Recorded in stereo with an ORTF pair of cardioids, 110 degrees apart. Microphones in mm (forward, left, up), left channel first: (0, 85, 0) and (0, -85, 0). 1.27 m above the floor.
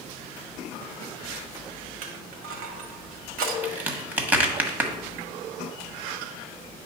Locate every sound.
2.0 s crushing: 60° right, 1.4 m
3.6 s a crack: 10° right, 1.4 m